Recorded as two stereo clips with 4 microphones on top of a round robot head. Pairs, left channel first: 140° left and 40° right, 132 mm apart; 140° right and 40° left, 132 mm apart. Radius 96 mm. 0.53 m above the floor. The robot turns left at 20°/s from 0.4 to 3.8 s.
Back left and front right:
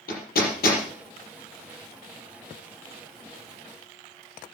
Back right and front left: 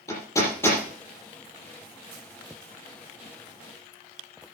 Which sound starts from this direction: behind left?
Hammering, at 0.1 s.